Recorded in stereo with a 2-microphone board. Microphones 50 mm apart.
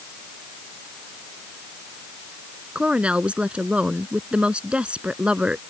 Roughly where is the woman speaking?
Right.